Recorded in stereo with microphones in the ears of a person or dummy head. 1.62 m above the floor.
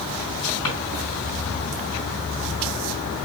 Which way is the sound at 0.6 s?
15° left (ahead or behind).